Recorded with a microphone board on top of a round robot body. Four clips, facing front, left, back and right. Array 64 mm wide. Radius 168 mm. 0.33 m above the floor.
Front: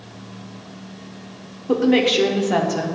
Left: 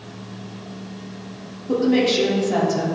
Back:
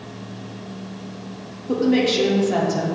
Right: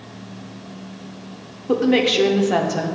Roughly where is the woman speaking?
Ahead right.